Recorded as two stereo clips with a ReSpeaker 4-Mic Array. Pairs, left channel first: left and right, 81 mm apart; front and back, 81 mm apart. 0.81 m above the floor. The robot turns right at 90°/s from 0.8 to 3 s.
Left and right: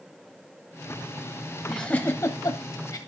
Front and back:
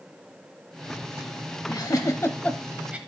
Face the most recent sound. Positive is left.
turn(degrees=120)